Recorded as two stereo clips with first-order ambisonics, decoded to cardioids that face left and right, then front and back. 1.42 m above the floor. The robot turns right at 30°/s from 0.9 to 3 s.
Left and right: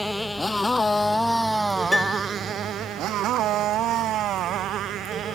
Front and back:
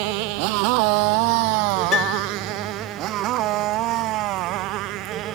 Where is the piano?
10° left; by 2.3 s 20° left.